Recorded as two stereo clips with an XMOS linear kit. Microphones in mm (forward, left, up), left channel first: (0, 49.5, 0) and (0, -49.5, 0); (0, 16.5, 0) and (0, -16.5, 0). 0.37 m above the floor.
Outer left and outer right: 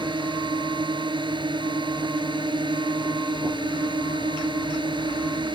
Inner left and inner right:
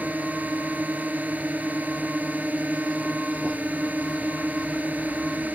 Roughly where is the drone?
Right.